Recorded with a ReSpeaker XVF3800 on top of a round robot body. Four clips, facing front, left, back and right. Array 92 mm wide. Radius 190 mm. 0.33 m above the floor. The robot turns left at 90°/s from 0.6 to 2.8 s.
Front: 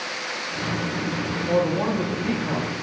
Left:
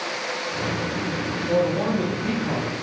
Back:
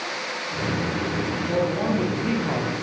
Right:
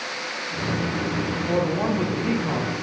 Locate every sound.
1.5 s a man speaking: 50° right, 1.0 m; by 2.7 s 160° right, 1.0 m